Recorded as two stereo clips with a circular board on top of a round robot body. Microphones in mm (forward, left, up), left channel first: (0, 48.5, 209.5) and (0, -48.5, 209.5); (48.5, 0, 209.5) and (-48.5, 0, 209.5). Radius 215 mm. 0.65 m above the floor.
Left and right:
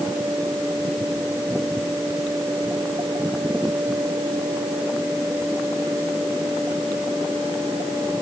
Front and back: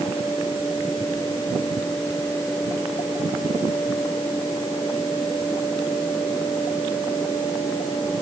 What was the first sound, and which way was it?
Only background noise.